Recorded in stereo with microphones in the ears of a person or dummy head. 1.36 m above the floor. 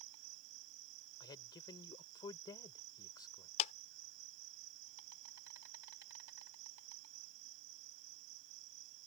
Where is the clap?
40° left (ahead or behind).